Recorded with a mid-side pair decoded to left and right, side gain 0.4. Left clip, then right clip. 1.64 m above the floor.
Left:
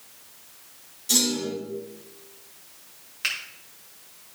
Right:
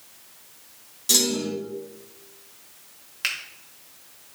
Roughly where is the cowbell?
No cowbell in this recording.